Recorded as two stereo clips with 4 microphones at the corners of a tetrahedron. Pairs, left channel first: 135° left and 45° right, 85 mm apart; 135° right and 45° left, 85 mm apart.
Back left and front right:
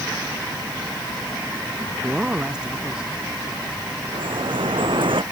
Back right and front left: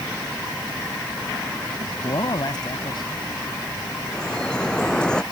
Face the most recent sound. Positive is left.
turn(degrees=-55)